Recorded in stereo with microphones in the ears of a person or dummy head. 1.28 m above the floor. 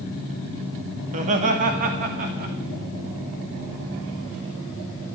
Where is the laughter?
35° right (ahead or behind), 2 m; by 2.5 s 50° right (ahead or behind), 3 m.